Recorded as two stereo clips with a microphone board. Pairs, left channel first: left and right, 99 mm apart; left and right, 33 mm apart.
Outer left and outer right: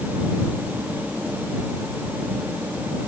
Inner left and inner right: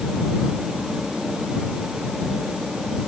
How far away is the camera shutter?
I don't hear a camera shutter.